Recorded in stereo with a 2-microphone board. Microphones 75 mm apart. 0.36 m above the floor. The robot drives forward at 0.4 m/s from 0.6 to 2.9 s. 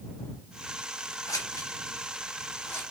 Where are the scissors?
50° left (ahead or behind), 1.1 m; by 2.8 s 35° left (ahead or behind), 1.5 m.